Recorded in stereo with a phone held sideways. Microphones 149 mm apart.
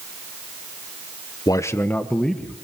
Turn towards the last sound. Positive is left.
turn(degrees=5)  # may be behind; listen again after turning